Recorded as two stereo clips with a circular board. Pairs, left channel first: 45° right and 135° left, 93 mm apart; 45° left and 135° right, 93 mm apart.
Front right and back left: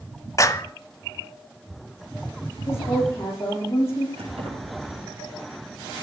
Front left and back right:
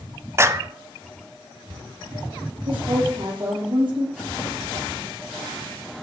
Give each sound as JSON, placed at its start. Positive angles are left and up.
{"t": 0.4, "sound": "a clap", "azimuth_deg": -85, "distance_m": 1.0}
{"t": 2.6, "sound": "a woman speaking", "azimuth_deg": -110, "distance_m": 9.0}
{"t": 4.2, "sound": "keys jangling", "azimuth_deg": 135, "distance_m": 7.5}